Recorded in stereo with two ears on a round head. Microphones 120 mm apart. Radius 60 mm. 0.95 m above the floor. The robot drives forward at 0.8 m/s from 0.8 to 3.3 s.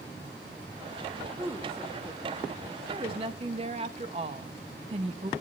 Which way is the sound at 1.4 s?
20° right (ahead or behind).